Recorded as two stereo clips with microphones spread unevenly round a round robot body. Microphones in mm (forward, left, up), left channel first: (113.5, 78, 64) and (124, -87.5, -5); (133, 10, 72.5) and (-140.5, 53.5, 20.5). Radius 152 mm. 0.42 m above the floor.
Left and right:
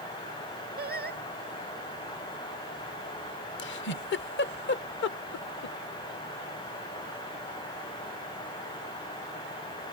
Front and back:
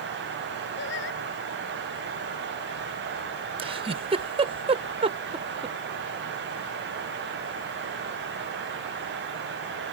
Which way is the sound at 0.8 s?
65° right.